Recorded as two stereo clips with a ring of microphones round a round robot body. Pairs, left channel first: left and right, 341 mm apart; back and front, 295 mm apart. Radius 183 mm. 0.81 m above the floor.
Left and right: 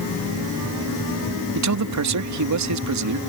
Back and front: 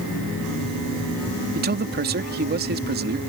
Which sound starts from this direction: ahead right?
A man speaking, at 1.6 s.